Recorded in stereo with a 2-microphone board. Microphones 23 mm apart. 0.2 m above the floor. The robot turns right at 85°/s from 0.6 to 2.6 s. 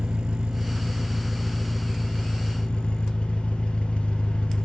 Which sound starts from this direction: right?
An engine running, at 0.0 s.